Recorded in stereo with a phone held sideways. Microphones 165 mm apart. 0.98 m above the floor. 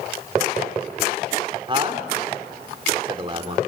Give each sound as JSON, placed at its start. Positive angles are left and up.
{"t": 1.7, "sound": "a man speaking", "side_deg": -30, "distance_m": 2.5}